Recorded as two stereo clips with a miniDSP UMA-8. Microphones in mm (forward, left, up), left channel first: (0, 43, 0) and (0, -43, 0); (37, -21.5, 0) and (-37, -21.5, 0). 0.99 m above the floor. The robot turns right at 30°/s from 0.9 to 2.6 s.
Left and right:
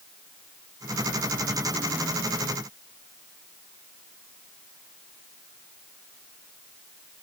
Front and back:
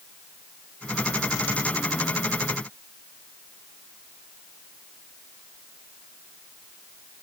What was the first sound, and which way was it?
Only background noise.